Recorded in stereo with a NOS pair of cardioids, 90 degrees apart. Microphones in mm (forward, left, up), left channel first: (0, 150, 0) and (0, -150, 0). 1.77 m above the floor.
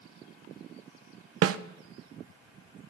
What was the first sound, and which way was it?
A snare drum, 55° right.